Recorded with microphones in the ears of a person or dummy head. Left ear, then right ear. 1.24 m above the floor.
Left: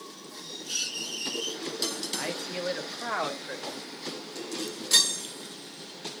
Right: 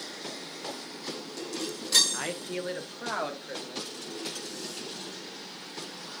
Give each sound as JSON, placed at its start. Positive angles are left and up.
{"t": 2.1, "sound": "a man speaking", "side_deg": -10, "distance_m": 1.2}